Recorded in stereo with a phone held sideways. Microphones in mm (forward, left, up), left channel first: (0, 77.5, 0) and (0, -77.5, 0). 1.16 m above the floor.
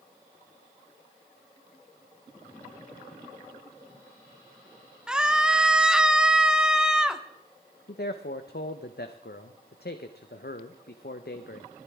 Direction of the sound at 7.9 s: 80° left.